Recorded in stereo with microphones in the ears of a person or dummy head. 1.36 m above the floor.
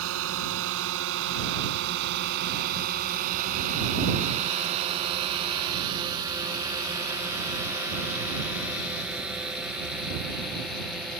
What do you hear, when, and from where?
0.0 s a drone: 80° right; by 11.2 s centre (ahead or behind)